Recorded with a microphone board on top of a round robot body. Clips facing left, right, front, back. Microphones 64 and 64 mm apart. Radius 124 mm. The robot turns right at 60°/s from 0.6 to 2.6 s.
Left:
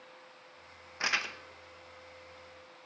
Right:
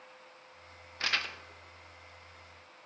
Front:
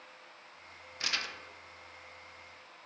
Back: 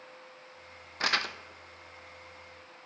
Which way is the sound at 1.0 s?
155° left.